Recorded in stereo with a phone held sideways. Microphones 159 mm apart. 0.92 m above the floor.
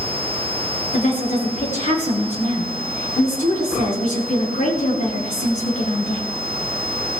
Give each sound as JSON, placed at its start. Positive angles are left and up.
{"t": 0.9, "sound": "a woman speaking", "side_deg": 55, "distance_m": 8.5}